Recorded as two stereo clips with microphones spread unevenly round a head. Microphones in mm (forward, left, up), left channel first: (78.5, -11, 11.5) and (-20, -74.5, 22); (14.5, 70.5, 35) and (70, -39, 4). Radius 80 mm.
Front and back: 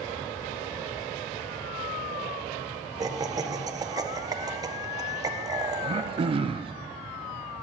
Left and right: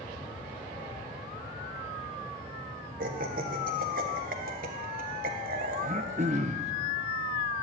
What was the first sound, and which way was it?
Laughter, 85° right.